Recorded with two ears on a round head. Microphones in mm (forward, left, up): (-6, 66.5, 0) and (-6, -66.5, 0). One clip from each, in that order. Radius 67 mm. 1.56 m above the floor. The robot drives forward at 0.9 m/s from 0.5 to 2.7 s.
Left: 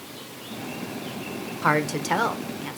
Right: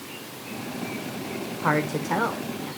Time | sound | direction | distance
1.6 | a woman speaking | 85° left | 1.3 m